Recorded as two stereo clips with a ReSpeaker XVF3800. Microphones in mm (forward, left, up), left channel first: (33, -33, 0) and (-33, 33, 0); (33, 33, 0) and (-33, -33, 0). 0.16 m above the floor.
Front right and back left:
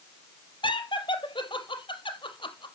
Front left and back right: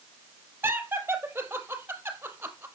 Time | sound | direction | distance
0.6 | laughter | 70° right | 3.5 m